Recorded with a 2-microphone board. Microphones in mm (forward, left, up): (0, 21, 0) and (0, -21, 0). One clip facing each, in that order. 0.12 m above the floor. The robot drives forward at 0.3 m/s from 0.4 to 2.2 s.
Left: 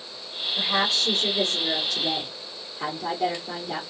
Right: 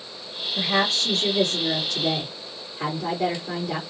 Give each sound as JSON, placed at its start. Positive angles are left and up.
{"t": 0.6, "sound": "a woman speaking", "side_deg": -45, "distance_m": 2.0}